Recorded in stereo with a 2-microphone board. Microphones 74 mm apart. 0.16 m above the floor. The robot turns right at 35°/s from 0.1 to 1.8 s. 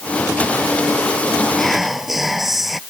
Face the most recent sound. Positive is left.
turn(degrees=-5)  # may be behind; listen again after turning